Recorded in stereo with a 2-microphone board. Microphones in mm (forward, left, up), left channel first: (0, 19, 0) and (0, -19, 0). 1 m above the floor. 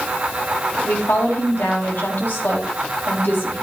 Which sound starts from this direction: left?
A woman speaking, at 0.8 s.